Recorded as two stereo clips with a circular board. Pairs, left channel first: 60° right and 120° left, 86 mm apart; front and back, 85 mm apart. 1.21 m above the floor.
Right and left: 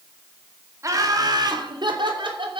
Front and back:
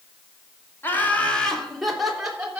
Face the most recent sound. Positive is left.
turn(degrees=100)